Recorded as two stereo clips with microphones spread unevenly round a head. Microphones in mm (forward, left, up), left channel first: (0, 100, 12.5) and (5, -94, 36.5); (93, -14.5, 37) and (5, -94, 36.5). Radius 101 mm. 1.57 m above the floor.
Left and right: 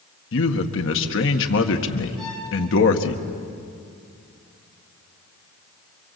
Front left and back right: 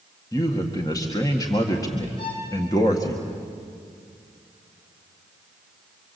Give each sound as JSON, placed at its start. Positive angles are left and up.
{"t": 0.3, "sound": "a man speaking", "azimuth_deg": 110, "distance_m": 1.8}
{"t": 2.2, "sound": "a violin", "azimuth_deg": 5, "distance_m": 6.5}